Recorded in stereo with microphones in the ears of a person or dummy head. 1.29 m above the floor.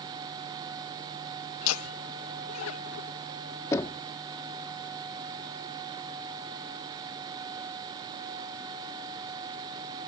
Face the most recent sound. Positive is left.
turn(degrees=15)  # may be behind; listen again after turning